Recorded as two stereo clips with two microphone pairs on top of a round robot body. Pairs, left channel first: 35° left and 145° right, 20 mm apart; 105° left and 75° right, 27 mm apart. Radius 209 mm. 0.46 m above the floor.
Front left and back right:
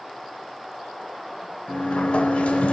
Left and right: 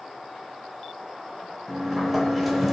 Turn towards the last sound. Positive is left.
turn(degrees=10)